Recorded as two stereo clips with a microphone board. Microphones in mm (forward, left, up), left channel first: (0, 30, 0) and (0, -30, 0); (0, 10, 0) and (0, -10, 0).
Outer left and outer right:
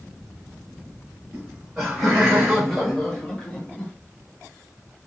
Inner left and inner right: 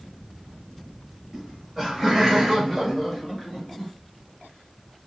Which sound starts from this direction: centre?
Laughter, at 1.3 s.